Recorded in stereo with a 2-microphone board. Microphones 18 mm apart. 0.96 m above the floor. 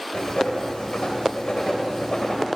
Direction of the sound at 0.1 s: 85° left.